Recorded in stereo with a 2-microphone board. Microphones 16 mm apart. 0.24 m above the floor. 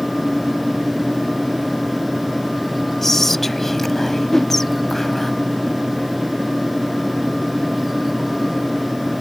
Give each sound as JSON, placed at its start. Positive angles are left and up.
{"t": 3.0, "sound": "whispering", "side_deg": 20}
{"t": 4.3, "sound": "a whoosh", "side_deg": 25}